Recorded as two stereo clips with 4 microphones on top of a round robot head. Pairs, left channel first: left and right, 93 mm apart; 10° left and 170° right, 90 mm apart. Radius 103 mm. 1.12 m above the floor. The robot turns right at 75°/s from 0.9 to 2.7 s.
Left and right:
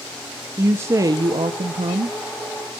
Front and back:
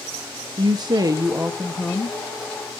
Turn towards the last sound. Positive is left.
turn(degrees=-10)